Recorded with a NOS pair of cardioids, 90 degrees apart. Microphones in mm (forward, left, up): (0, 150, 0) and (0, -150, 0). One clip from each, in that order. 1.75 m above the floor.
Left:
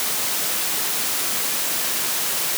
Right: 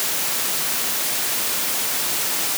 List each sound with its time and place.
Only background noise.